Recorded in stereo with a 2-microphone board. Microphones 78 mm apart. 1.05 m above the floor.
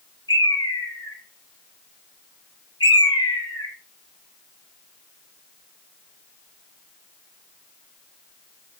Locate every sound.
0.3 s a bird: 80° left, 1.0 m